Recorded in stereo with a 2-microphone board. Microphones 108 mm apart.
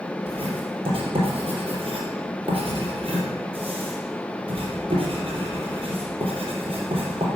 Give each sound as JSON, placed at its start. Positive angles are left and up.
{"t": 0.3, "sound": "writing", "side_deg": -55, "distance_m": 4.0}